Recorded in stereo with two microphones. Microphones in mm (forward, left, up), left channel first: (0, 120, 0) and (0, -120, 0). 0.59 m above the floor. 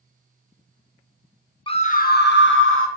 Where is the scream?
20° left (ahead or behind), 0.6 m; by 2.9 s 60° left (ahead or behind), 1.2 m.